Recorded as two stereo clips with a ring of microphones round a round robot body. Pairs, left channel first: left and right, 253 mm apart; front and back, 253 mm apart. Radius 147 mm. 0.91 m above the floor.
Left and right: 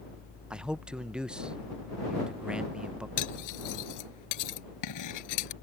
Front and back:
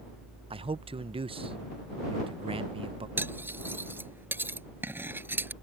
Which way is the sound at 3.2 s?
100° left.